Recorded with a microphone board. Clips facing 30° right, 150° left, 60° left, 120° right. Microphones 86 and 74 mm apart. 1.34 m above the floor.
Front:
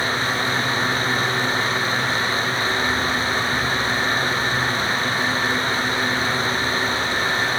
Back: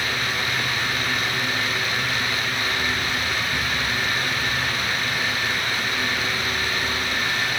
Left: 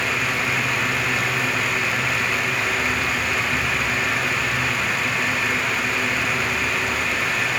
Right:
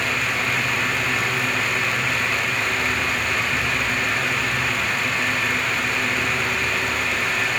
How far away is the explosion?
No explosion in this recording.